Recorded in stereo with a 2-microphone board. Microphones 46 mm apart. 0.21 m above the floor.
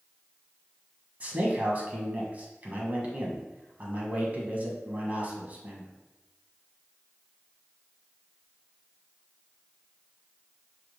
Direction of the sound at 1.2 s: 35° right (ahead or behind).